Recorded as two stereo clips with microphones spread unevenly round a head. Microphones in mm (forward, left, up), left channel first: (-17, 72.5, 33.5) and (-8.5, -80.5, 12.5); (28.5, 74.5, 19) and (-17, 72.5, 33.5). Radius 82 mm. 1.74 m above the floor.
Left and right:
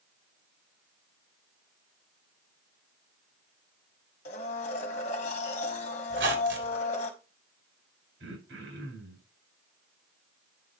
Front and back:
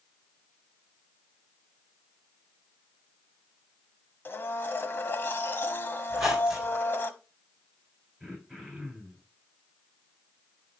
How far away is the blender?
About 1.7 m.